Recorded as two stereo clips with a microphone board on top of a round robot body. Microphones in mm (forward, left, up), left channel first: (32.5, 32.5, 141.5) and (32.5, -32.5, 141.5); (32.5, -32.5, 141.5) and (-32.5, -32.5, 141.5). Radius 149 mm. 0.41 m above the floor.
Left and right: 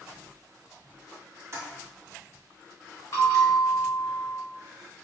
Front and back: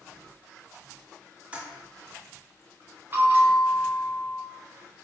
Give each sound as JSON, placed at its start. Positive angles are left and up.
{"t": 1.5, "sound": "a toilet flushing", "azimuth_deg": -115, "distance_m": 1.7}
{"t": 3.1, "sound": "a bell", "azimuth_deg": 125, "distance_m": 1.6}